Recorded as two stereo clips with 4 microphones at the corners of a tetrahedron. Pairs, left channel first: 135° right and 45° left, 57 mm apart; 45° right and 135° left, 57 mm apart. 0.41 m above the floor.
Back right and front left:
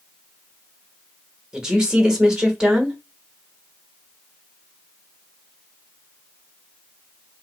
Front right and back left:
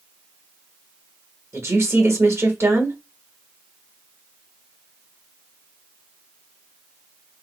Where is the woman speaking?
120° left, 1.2 m.